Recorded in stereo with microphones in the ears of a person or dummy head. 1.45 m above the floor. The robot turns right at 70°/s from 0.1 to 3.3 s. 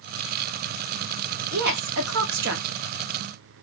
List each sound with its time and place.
1.5 s a woman speaking: 40° right (ahead or behind), 0.8 m; by 2.6 s 55° right (ahead or behind), 0.8 m